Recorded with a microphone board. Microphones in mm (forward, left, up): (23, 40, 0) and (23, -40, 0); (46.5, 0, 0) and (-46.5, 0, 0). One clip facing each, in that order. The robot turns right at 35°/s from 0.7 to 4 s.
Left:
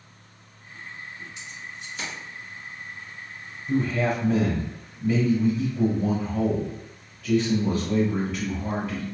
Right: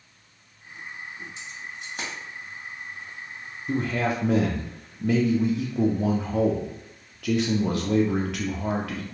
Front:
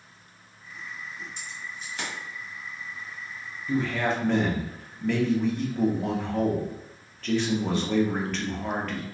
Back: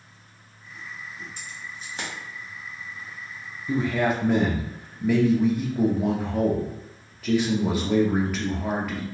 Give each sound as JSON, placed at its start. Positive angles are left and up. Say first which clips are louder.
{"t": 1.4, "sound": "keys jangling", "louder": "right 1 dB, even", "azimuth_deg": -145, "distance_m": 1.1}
{"t": 3.7, "sound": "a man speaking", "louder": "left 2 dB, back 3 dB", "azimuth_deg": -110, "distance_m": 0.6}